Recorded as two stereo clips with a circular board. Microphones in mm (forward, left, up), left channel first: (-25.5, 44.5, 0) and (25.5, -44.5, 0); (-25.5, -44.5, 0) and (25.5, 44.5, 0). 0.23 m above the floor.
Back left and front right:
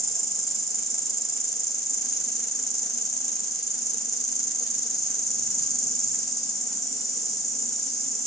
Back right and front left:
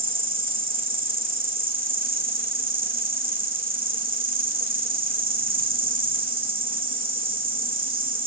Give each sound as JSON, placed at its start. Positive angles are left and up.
{"t": 0.0, "sound": "an insect", "azimuth_deg": 30, "distance_m": 2.5}